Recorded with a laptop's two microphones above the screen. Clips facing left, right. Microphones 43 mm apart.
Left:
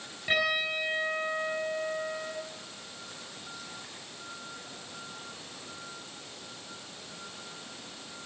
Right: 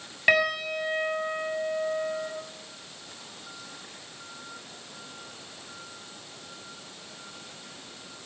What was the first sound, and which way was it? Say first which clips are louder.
A piano: right 5 dB; 75° right (ahead or behind).